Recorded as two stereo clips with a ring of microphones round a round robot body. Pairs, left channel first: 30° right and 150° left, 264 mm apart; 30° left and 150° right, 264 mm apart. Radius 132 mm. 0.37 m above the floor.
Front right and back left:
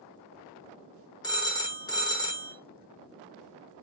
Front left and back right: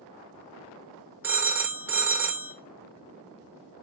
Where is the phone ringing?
80° right, 0.6 m.